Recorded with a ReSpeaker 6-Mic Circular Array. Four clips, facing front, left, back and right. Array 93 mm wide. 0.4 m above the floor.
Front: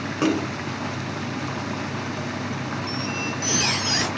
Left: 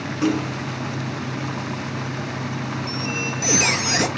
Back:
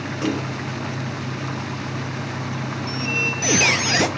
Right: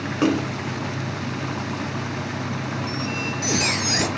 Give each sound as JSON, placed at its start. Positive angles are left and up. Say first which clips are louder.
{"t": 0.2, "sound": "a splash", "louder": "right 1 dB, front 3 dB", "azimuth_deg": -55, "distance_m": 1.2}
{"t": 2.9, "sound": "a squeak", "louder": "even, back 2 dB", "azimuth_deg": 170, "distance_m": 0.9}